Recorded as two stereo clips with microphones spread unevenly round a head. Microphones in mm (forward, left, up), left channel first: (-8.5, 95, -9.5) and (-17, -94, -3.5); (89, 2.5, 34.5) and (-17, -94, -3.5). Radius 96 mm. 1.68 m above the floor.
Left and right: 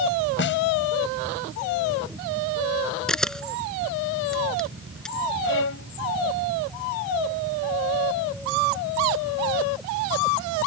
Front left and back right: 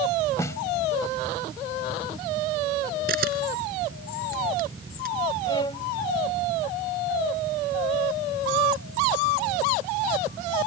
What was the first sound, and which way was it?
A snare drum, 115° left.